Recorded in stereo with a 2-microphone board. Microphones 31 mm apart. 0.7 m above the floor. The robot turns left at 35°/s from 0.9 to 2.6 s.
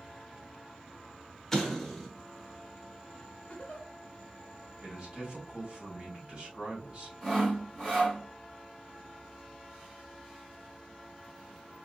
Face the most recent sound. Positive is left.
turn(degrees=0)  # may be behind; listen again after turning